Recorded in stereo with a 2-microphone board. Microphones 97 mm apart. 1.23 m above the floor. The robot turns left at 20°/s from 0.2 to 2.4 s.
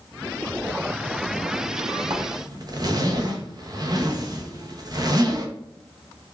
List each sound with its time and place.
2.1 s a zipper: 35° right (ahead or behind), 0.6 m; by 5.5 s 40° right (ahead or behind), 0.6 m